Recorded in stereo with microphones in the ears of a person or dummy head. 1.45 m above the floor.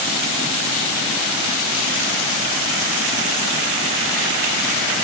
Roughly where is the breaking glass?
No breaking glass in this recording.